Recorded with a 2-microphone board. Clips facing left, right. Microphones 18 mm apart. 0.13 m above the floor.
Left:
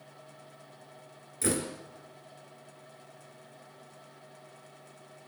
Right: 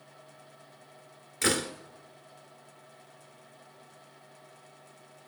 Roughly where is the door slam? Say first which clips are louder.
Right 3 dB; right.